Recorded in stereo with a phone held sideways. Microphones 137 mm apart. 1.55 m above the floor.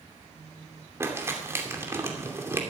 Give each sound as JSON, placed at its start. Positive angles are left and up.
{"t": 1.0, "sound": "crumpling", "side_deg": -20, "distance_m": 2.5}